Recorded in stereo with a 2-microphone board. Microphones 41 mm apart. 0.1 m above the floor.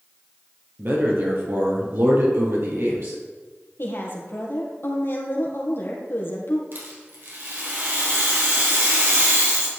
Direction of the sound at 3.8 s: 65° left (ahead or behind).